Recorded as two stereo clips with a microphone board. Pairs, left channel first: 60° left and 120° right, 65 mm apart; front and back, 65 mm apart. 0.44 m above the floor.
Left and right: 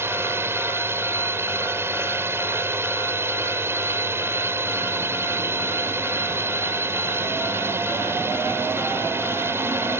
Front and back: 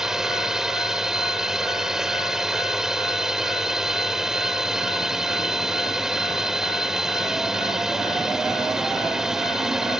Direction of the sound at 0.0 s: 100° right.